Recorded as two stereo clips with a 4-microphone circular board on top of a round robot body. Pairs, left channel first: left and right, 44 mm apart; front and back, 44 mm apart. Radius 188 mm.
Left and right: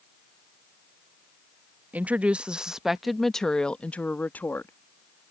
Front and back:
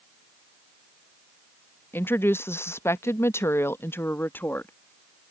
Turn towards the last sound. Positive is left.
turn(degrees=45)